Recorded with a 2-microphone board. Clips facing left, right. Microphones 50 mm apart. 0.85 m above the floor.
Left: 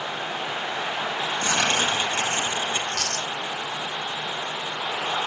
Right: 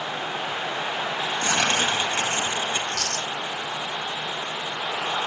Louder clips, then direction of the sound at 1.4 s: Even; 25° right (ahead or behind).